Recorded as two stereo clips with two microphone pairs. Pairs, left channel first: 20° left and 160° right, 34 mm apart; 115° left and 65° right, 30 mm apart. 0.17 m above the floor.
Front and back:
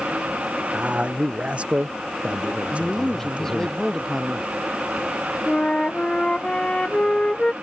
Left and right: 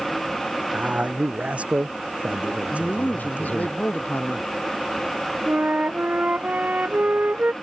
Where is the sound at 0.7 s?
105° right.